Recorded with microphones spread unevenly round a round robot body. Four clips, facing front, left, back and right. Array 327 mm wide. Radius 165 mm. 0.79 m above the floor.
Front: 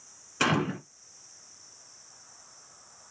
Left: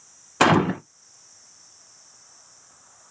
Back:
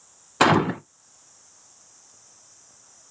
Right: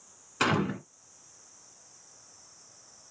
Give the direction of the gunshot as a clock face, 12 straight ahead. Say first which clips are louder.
Left 10 dB, back 9 dB; 8 o'clock.